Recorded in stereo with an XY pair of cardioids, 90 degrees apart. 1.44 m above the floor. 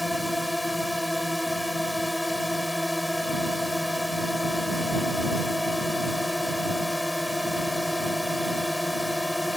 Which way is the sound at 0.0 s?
10° left.